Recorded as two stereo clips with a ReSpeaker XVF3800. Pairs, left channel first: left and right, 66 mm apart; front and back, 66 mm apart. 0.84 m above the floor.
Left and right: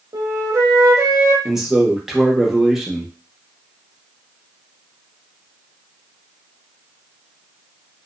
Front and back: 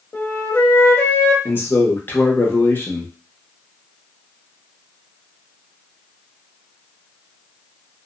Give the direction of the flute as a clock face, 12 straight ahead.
2 o'clock.